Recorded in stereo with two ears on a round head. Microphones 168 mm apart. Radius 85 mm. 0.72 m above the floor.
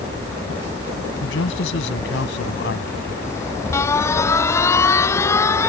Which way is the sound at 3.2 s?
15° left (ahead or behind).